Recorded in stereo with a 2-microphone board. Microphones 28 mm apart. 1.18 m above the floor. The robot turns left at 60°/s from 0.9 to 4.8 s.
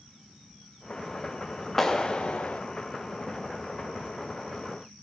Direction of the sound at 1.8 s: 165° left.